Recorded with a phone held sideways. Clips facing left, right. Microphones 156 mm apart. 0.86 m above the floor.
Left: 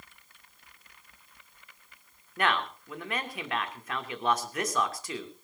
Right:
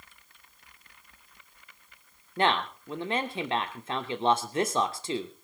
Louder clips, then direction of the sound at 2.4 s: Right 3 dB; 30° right (ahead or behind).